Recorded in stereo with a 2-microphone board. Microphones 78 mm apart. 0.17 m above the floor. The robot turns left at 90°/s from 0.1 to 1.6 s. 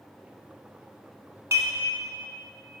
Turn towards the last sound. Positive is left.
turn(degrees=-40)  # may be behind; listen again after turning